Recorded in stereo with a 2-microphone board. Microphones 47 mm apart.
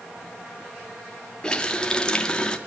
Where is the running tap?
20° left (ahead or behind), 1.3 m.